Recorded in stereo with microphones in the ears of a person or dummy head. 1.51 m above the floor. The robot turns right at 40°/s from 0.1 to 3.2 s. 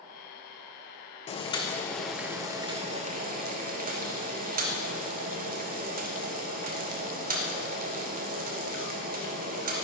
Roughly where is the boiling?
Behind left.